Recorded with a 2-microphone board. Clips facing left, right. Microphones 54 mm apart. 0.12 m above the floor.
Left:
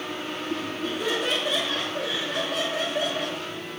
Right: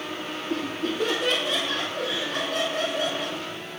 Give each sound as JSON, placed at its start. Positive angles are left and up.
{"t": 0.5, "sound": "laughter", "side_deg": -55, "distance_m": 2.0}